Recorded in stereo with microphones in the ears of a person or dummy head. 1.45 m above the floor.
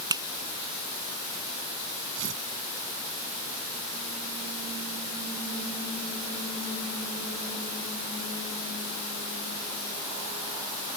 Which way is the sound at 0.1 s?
25° right (ahead or behind).